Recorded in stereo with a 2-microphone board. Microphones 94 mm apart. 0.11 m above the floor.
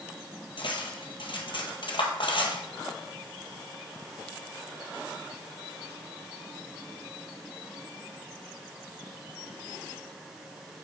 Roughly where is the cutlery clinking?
Left.